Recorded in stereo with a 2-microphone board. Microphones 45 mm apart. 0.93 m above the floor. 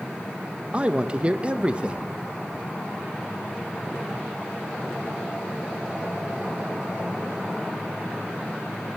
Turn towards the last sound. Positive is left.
turn(degrees=-25)  # may be behind; listen again after turning